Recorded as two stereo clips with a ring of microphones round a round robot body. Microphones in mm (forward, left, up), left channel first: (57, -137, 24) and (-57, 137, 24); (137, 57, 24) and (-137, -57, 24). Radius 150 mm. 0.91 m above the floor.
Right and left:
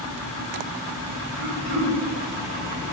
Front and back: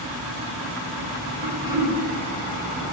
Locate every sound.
1.4 s throat clearing: 125° left, 1.6 m